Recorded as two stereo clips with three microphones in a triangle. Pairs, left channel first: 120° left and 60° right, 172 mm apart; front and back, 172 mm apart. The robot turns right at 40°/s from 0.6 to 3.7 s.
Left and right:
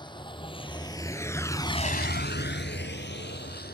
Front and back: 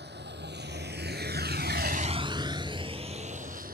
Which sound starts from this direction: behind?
A vehicle, at 0.0 s.